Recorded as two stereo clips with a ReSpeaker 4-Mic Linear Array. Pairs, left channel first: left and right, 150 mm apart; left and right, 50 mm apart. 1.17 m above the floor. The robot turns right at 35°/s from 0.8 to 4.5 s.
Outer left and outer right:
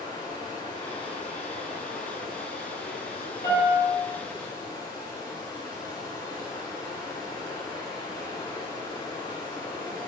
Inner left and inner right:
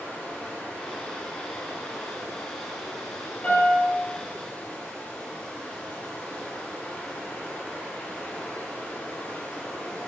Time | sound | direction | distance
0.0 | running water | 25° left | 2 m
3.4 | a piano | 25° left (ahead or behind) | 3 m